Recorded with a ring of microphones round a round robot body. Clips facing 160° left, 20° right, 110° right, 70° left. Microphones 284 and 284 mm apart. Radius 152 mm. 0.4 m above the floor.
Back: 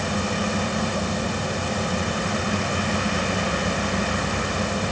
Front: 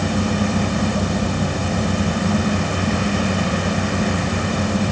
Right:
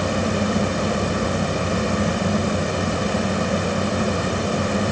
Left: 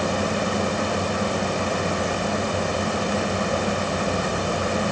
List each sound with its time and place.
Only background noise.